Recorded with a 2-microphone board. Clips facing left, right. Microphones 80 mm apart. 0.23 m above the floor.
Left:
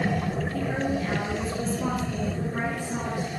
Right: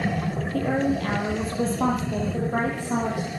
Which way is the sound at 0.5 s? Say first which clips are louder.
Right 6 dB; 55° right (ahead or behind).